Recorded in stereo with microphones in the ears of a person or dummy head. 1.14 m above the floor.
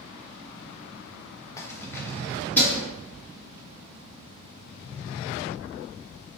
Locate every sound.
1.6 s keys jangling: 15° left (ahead or behind), 0.6 m; by 2.9 s 10° left (ahead or behind), 1.4 m